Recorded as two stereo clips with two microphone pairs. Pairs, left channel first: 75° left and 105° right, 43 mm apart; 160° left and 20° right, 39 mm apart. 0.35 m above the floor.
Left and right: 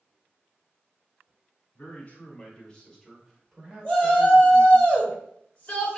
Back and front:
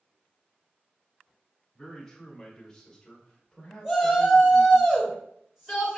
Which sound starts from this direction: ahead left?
A shout, at 3.8 s.